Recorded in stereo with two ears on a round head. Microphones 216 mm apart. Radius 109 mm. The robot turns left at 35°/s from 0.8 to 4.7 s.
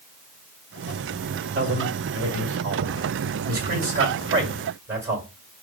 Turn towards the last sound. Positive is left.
turn(degrees=-10)  # may be behind; listen again after turning